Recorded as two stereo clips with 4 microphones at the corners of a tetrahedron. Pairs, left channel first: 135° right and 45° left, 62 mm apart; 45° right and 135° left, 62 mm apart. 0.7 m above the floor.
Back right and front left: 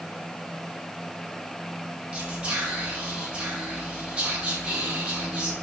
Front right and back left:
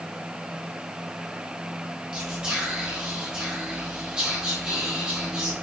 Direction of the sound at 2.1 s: 85° left.